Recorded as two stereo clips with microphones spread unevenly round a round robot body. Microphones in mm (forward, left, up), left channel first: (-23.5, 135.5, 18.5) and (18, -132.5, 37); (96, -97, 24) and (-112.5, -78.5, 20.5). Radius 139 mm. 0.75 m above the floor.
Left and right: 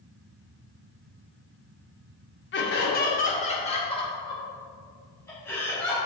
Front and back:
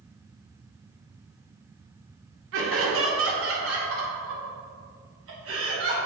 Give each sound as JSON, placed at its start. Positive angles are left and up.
{"t": 2.5, "sound": "laughter", "azimuth_deg": 145, "distance_m": 1.9}